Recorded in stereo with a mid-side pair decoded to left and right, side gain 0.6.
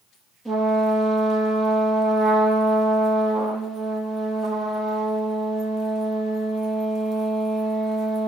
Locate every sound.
0.5 s a trumpet: 10° left, 7.5 m